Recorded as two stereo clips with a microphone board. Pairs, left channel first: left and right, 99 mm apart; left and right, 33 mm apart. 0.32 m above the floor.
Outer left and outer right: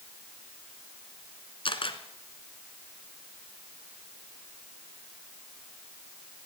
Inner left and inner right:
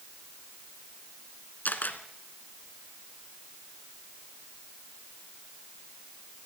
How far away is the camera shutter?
About 1.4 m.